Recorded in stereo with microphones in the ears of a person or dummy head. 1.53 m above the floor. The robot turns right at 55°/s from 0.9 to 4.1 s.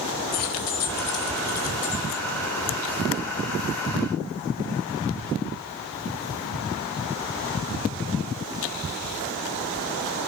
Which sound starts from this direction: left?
Keys jangling, at 0.3 s.